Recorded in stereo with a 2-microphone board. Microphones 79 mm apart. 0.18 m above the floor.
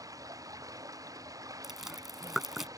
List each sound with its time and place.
0.0 s running water: 50° right (ahead or behind)
1.6 s chewing: 5° right (ahead or behind)